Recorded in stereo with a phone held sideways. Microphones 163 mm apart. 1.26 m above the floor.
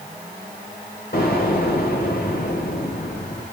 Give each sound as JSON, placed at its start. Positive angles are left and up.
{"t": 1.1, "sound": "an explosion", "side_deg": 75, "distance_m": 5.5}